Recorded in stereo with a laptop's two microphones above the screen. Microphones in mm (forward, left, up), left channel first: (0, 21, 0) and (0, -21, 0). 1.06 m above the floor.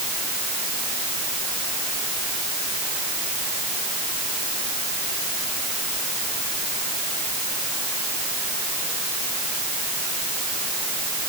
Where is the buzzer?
I don't hear a buzzer.